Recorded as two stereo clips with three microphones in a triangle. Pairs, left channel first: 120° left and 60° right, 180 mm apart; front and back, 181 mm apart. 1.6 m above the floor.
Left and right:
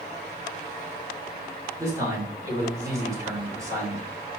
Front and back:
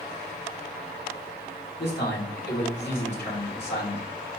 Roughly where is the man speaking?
Ahead.